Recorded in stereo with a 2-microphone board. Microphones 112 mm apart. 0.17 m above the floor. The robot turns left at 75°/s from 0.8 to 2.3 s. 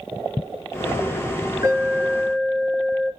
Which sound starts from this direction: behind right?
An alarm, at 1.6 s.